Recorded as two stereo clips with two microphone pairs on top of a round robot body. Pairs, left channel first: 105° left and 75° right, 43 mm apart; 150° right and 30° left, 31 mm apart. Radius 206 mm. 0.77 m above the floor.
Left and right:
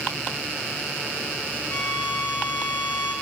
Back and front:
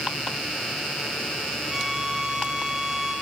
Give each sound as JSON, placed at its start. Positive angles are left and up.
{"t": 1.7, "sound": "a violin", "azimuth_deg": 125, "distance_m": 0.7}